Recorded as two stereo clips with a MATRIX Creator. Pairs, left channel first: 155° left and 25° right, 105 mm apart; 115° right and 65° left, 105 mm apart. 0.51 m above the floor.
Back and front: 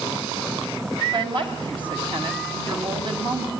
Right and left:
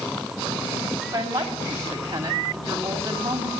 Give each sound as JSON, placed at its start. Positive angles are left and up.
{"t": 1.1, "sound": "a woman speaking", "azimuth_deg": 10, "distance_m": 3.5}